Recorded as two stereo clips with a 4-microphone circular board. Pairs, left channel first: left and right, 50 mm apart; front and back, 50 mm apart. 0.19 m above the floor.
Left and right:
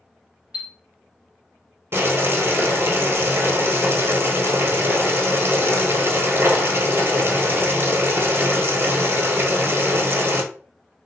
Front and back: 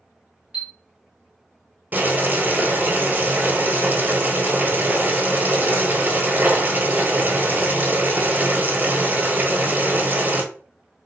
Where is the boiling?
125° right, 1.2 m.